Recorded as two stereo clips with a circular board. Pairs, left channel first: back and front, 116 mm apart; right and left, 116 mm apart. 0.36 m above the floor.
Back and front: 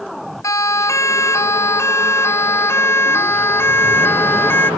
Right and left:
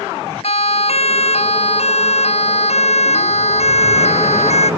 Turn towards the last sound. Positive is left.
turn(degrees=-110)